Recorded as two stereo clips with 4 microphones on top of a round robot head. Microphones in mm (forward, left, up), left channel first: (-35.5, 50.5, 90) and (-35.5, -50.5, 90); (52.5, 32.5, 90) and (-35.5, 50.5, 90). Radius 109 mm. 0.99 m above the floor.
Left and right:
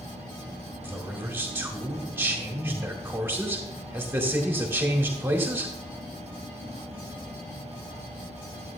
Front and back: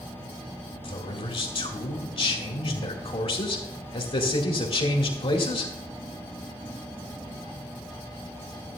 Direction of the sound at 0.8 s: 20° right.